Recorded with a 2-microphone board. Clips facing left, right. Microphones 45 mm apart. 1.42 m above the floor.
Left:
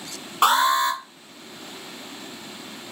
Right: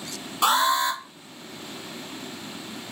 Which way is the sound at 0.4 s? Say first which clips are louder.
Left 3 dB; 40° left (ahead or behind).